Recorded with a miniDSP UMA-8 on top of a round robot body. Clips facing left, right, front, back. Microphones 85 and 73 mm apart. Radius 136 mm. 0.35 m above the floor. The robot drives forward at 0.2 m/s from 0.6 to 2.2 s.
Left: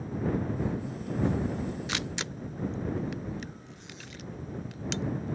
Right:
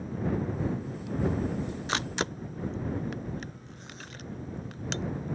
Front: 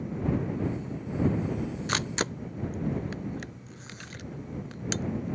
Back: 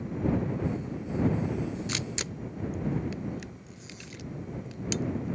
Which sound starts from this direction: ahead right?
A camera shutter, at 1.9 s.